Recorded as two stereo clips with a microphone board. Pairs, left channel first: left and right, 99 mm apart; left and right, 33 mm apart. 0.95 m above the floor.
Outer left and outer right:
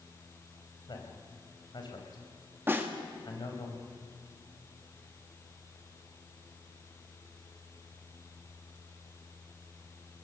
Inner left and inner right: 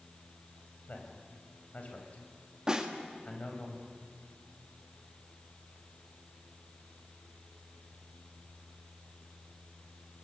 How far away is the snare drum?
About 2.0 m.